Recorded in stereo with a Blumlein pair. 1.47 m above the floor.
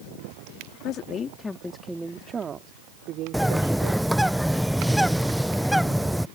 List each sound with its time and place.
0.8 s a woman speaking: 35° left; by 4.2 s 50° right
3.3 s a bird: straight ahead